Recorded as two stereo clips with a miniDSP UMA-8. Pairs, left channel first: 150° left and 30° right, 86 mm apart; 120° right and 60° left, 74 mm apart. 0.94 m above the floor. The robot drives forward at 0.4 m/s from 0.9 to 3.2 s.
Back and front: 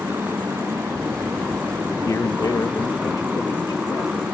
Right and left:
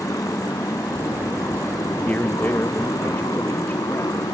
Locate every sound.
0.0 s a motorcycle: 90° right; by 4.3 s 105° right
2.0 s a man speaking: straight behind